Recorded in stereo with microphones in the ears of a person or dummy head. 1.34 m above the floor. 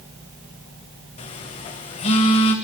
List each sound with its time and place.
1.2 s a phone buzzing: 40° left (ahead or behind), 2 m